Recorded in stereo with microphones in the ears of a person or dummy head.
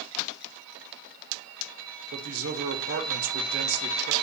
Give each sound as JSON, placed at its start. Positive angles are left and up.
{"t": 2.1, "sound": "a man speaking", "side_deg": -55, "distance_m": 1.2}